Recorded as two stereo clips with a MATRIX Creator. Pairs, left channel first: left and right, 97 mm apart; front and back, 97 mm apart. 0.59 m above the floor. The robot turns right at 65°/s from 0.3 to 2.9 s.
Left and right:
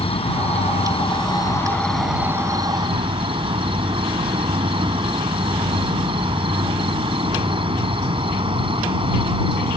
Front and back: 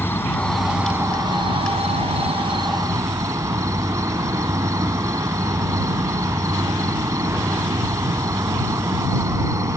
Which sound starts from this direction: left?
An insect, at 0.0 s.